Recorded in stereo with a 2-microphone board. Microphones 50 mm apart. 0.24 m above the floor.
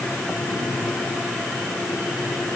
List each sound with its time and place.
Only background noise.